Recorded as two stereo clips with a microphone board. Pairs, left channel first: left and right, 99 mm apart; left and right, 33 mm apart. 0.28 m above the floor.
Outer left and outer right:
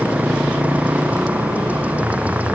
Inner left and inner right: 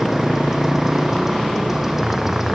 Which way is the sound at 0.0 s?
15° right (ahead or behind).